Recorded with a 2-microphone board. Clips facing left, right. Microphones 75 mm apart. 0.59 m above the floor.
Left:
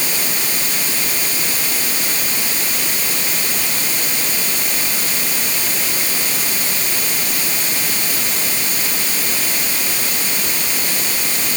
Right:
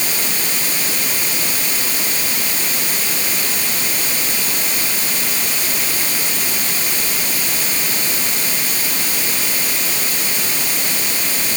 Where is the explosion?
I don't hear an explosion.